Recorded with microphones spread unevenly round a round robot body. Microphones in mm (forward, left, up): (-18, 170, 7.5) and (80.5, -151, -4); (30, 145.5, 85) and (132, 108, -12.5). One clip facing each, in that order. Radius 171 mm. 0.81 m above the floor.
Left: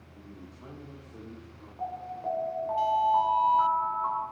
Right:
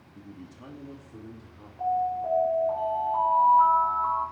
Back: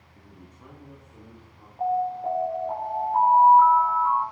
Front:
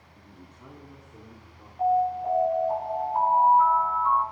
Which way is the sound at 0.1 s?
100° right.